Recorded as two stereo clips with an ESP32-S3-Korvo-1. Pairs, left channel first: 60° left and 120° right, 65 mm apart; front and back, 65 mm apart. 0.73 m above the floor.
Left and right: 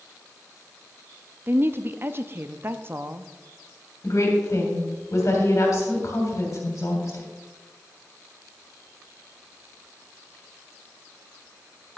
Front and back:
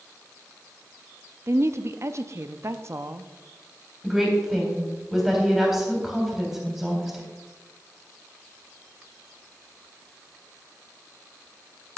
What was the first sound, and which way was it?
A woman speaking, 160° right.